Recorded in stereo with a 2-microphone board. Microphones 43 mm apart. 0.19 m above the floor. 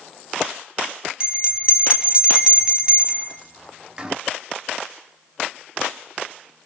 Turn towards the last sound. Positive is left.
turn(degrees=-20)  # may be behind; listen again after turning